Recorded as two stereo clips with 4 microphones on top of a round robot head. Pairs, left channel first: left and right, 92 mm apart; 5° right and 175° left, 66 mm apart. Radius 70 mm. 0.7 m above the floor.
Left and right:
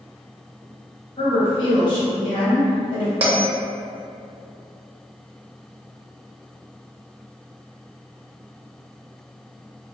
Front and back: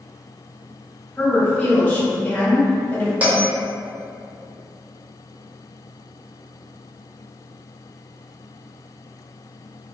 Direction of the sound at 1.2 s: 60° left.